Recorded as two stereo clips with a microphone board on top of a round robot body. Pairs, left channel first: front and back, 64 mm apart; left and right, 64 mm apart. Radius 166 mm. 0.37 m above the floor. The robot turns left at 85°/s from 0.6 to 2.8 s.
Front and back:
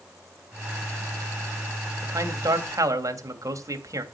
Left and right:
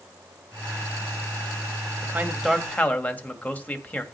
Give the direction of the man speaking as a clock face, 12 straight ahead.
5 o'clock.